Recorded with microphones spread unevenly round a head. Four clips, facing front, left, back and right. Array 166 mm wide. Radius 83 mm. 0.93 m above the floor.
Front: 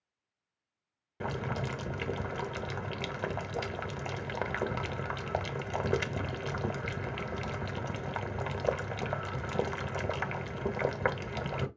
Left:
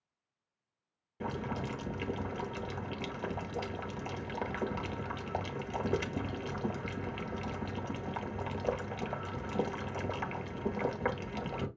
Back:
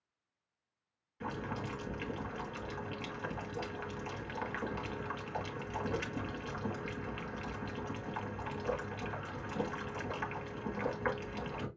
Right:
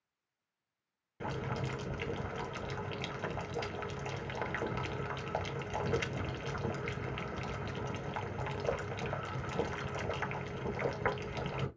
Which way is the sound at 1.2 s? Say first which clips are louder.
Left 1 dB, front 4 dB; 10° left.